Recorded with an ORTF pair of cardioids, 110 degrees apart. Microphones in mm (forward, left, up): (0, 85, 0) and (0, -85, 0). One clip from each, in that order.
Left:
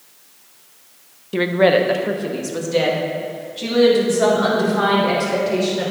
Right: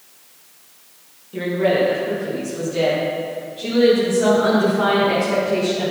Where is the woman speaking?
60° left, 0.8 m; by 5.9 s 70° left, 5.5 m.